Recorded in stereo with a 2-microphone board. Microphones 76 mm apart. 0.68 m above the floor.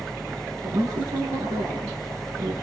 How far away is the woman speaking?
About 8.5 m.